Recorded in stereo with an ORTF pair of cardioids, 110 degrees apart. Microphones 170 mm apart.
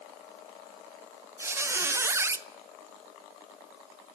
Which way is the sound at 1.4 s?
15° right.